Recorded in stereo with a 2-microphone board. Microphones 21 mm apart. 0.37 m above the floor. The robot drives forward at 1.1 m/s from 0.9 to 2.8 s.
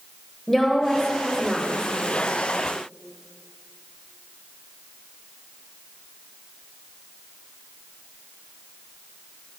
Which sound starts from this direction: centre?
A woman speaking, at 0.5 s.